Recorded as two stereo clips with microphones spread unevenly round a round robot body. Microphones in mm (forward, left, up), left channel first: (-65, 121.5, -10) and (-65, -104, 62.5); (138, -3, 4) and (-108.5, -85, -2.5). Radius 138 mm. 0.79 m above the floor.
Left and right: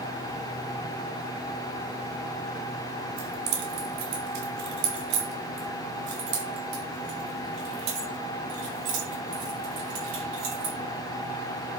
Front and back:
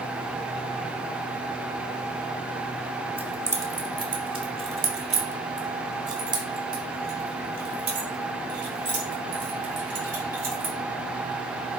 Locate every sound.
3.2 s keys jangling: 80° right, 2 m; by 10.7 s 115° right, 5.5 m